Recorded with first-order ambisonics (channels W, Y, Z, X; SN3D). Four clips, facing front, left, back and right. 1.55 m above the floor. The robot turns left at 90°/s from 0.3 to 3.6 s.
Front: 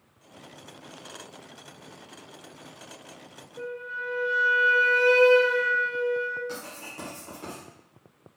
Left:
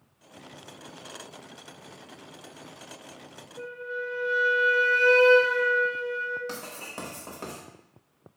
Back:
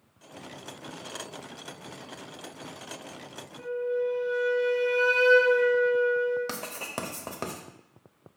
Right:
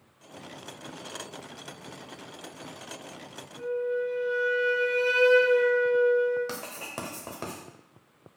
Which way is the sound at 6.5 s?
165° right.